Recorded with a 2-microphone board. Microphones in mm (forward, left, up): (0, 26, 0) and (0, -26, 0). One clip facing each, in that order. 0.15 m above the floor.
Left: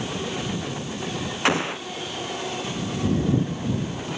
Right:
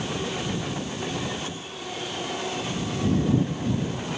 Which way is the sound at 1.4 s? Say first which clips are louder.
Left 13 dB; 85° left.